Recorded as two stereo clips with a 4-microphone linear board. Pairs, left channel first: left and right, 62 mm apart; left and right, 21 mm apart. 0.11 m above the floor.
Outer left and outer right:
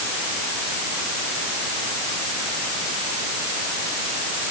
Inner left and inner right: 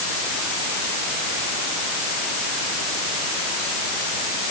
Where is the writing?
No writing in this recording.